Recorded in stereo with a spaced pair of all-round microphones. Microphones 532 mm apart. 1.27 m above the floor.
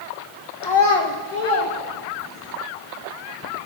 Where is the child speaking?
40° left (ahead or behind), 0.7 m; by 2.5 s 80° left, 2.5 m.